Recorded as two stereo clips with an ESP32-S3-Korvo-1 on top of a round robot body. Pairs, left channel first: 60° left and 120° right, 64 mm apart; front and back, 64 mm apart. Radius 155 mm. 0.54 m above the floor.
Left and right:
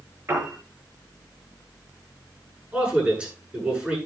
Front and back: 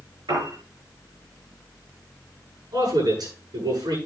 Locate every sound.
0.3 s a piano: 170° right, 5.5 m
2.7 s a man speaking: 170° left, 8 m